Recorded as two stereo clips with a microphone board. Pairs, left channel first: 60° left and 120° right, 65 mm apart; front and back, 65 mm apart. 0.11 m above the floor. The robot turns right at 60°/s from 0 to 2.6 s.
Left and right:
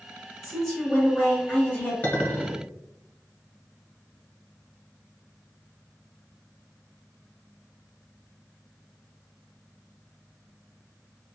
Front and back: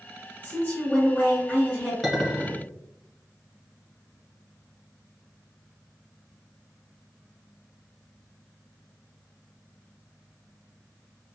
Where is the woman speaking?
25° right, 1.7 m; by 1.9 s 65° left, 1.7 m.